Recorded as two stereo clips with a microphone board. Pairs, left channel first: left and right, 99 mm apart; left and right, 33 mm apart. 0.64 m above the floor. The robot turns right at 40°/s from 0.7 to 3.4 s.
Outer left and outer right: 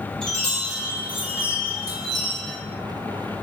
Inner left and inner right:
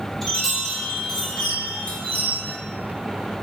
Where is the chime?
15° left, 1.3 m; by 2.5 s 85° left, 1.3 m.